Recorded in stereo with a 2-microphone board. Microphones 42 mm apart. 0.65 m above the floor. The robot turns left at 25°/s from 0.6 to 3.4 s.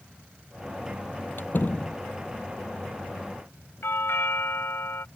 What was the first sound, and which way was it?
A door slam, 55° left (ahead or behind).